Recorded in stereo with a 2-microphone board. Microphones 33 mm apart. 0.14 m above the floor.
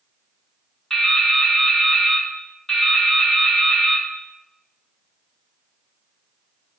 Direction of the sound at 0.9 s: 5° left (ahead or behind).